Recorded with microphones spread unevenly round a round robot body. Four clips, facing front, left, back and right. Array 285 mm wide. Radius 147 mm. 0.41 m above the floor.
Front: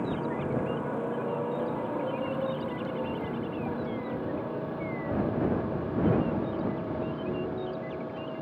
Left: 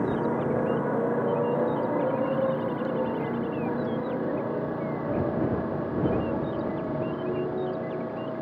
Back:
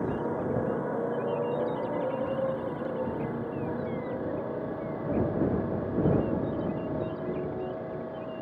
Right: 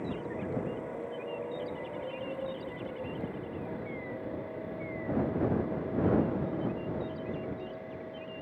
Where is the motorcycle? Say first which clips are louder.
Left 10 dB, back 1 dB; 75° left; by 8.4 s 70° left.